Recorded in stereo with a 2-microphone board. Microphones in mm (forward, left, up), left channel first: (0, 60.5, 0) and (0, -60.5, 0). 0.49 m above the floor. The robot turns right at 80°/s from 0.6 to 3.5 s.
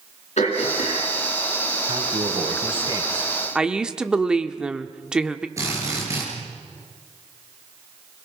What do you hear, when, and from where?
0.4 s throat clearing: 70° left, 7 m; by 1.1 s 110° left, 7 m
1.9 s a man speaking: 120° right, 2.5 m; by 3.3 s 5° right, 2.5 m
3.5 s a woman speaking: 5° right (ahead or behind), 0.9 m
5.6 s a drill: 25° right (ahead or behind), 7 m